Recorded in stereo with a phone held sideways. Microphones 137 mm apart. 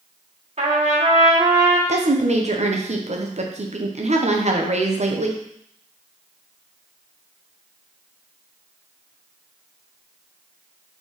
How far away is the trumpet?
About 1.7 m.